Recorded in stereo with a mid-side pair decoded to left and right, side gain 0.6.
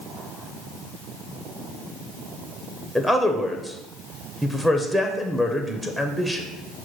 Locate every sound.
3.0 s a man speaking: 5° right, 0.6 m